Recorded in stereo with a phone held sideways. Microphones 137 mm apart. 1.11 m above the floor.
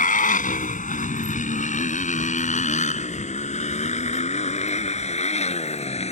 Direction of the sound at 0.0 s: 75° left (ahead or behind).